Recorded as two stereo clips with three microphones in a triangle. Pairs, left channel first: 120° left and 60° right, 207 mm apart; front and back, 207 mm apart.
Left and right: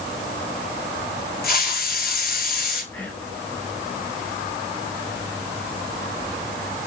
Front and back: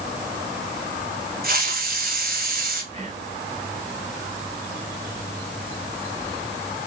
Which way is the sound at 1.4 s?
150° left.